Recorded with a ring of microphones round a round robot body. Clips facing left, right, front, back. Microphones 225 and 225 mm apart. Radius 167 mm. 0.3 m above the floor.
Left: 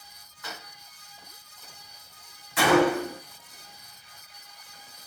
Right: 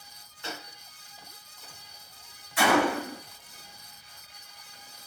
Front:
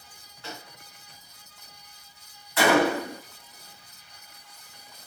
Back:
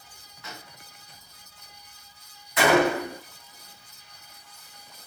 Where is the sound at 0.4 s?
40° right, 0.9 m.